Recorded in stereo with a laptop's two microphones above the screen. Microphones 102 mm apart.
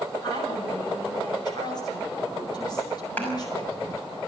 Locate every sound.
0.2 s a woman speaking: 40° left (ahead or behind), 6.5 m
3.2 s a clap: 15° left (ahead or behind), 6 m